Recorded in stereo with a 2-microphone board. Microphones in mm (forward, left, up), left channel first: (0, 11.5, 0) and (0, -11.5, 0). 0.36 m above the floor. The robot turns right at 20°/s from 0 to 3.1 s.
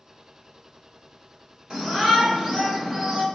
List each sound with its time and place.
1.7 s a shout: 30° right (ahead or behind), 1.8 m; by 3.2 s 45° right (ahead or behind), 1.8 m